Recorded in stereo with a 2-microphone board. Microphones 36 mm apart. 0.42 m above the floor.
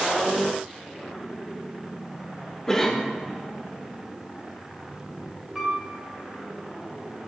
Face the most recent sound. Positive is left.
turn(degrees=-10)  # may be behind; listen again after turning